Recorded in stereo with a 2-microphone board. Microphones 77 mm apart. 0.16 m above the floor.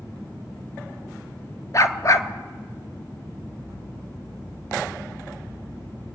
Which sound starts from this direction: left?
A dog barking, at 1.7 s.